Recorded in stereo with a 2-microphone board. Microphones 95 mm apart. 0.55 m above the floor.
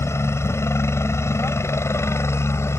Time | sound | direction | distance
0.0 | a helicopter | 30° left (ahead or behind) | ?